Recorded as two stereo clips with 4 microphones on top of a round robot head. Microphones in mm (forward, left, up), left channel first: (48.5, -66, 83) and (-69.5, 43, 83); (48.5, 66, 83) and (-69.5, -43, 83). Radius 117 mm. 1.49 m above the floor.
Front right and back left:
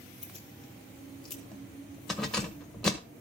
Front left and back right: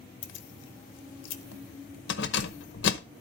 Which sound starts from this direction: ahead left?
Keys jangling, at 0.2 s.